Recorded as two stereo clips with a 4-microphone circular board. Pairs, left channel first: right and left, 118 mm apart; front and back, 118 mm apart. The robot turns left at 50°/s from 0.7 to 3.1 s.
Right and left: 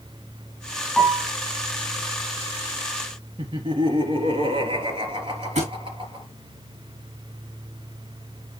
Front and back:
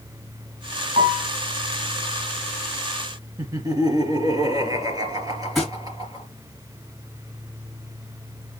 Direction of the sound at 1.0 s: 160° right.